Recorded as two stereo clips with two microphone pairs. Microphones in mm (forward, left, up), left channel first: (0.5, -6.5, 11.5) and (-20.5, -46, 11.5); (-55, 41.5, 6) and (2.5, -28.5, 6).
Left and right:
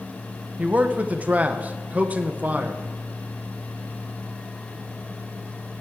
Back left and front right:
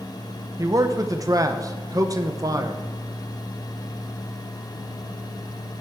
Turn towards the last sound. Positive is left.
turn(degrees=-80)